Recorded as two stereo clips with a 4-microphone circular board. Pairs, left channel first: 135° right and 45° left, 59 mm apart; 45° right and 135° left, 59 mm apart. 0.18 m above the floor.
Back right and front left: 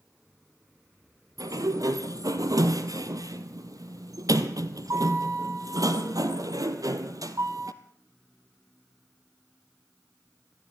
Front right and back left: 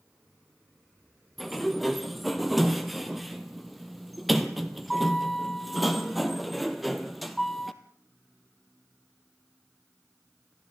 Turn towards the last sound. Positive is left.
turn(degrees=45)